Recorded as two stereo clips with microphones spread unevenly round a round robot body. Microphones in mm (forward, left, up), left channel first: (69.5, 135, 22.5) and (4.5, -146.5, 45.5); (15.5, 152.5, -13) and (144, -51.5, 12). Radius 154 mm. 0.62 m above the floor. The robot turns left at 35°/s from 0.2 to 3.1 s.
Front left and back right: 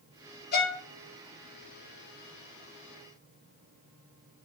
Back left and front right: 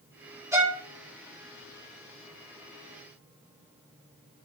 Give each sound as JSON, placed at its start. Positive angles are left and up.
{"t": 0.5, "sound": "a violin", "azimuth_deg": 20, "distance_m": 4.5}